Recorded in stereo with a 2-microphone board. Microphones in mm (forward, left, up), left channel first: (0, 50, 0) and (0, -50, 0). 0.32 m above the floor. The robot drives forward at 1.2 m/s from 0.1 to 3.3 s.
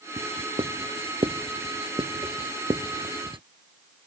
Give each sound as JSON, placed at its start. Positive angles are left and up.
{"t": 0.2, "sound": "writing", "side_deg": -75}